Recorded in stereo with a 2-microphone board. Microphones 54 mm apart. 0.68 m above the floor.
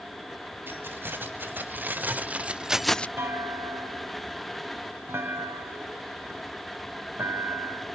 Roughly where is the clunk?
Right.